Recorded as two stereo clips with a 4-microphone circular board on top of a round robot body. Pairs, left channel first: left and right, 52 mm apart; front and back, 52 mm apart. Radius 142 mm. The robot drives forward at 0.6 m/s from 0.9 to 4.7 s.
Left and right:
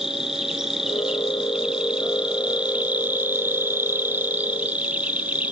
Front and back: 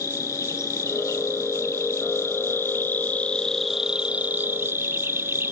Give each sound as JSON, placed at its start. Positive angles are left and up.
{"t": 0.0, "sound": "an insect", "azimuth_deg": -15, "distance_m": 1.8}